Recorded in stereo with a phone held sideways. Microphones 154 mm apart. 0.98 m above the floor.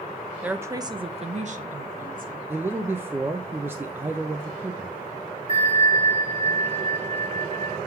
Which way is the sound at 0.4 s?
10° right (ahead or behind).